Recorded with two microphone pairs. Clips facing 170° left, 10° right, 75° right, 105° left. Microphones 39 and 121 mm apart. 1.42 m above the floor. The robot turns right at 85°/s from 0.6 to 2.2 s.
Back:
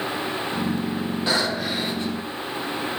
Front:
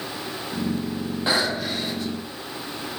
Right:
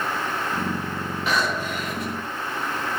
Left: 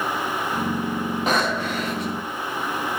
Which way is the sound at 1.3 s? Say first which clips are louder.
Front 1 dB, left 1 dB; 55° left.